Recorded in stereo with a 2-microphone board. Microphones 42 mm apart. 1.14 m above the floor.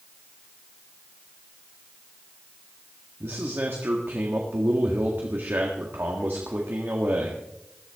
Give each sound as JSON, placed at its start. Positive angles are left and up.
{"t": 3.2, "sound": "a man speaking", "side_deg": -65, "distance_m": 1.7}